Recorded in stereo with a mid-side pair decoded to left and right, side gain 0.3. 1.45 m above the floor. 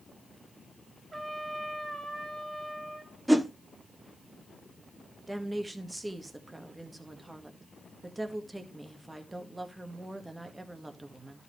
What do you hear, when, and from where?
1.1 s a trumpet: 35° right, 3 m
3.3 s a whoosh: 10° right, 1.0 m
5.3 s a woman speaking: 20° right, 1.8 m